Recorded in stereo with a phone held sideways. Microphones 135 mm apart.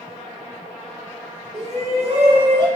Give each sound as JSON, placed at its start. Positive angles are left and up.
{"t": 1.5, "sound": "a shout", "side_deg": -55, "distance_m": 2.0}